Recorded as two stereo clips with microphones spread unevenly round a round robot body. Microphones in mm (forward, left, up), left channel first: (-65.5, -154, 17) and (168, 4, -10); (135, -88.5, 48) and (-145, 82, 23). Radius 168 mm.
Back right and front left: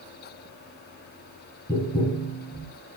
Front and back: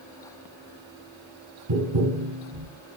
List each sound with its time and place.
1.7 s tapping: 135° left, 3 m